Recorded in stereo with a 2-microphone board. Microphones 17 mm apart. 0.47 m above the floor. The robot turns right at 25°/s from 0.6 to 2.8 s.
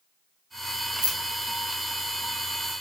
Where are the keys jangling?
75° right (ahead or behind), 1.2 m; by 2.7 s 50° right (ahead or behind), 1.2 m.